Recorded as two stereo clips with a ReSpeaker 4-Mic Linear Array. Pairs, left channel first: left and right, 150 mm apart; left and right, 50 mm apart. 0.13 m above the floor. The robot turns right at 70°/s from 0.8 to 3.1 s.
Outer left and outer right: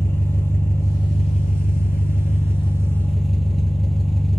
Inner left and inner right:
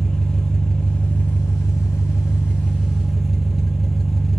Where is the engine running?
15° left, 0.9 m; by 4.4 s straight behind, 0.9 m.